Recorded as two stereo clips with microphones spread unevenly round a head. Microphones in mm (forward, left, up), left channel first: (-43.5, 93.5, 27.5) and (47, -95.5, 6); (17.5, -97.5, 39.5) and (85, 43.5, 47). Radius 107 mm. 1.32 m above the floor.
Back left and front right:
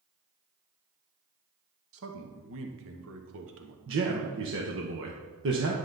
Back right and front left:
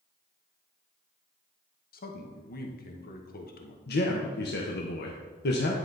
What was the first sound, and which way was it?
A man speaking, 90° right.